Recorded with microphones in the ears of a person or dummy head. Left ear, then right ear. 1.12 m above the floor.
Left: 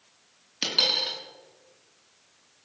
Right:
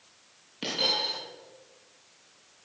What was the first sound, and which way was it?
A dropped coin, 50° left (ahead or behind).